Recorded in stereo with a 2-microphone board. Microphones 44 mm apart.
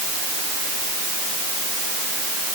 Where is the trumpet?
I don't hear a trumpet.